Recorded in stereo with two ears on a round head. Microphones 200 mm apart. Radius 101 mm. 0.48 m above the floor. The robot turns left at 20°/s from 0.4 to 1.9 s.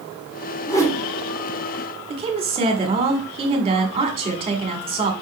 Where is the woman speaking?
25° right (ahead or behind), 2.0 m.